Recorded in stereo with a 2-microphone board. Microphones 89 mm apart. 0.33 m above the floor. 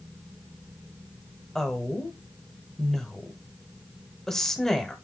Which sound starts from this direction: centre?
A woman speaking, at 1.6 s.